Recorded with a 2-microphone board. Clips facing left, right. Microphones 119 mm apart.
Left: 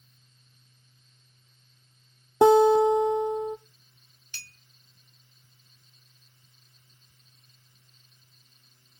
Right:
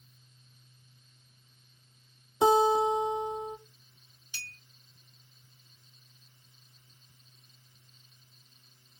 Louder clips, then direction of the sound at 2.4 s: Left 6 dB; 70° left (ahead or behind).